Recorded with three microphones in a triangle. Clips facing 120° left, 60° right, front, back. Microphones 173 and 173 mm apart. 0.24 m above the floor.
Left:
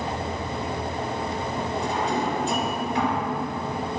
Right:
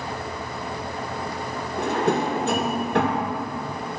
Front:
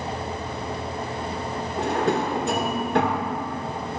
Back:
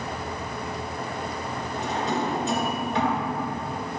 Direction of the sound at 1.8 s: 35° right.